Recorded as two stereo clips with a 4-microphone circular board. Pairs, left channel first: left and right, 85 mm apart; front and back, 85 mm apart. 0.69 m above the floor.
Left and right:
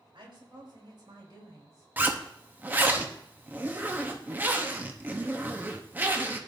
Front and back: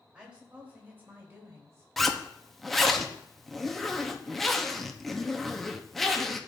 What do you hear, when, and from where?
0.1 s a woman speaking: 100° right, 3.5 m; by 1.9 s 130° right, 3 m
2.0 s a zipper: 85° right, 0.9 m